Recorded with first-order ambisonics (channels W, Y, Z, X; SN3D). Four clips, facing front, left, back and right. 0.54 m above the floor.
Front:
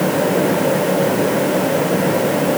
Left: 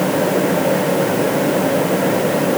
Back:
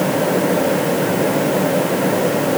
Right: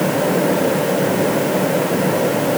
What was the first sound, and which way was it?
Only background noise.